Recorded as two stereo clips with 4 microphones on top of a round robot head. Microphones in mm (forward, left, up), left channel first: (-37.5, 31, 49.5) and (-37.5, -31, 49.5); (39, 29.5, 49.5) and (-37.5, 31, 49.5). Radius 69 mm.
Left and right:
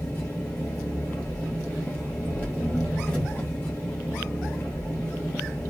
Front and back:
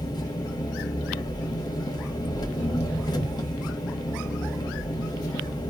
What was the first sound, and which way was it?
An engine running, 25° left.